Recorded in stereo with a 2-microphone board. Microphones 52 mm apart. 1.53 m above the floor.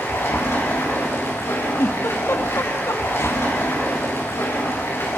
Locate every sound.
0.0 s running water: 55° left (ahead or behind), 8.5 m
1.8 s a giggle: 60° left (ahead or behind), 2 m